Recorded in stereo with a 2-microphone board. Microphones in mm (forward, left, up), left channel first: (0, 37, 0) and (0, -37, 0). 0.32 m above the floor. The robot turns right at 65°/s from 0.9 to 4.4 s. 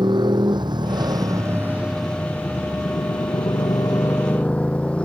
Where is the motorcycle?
80° right; by 5.1 s 15° left (ahead or behind).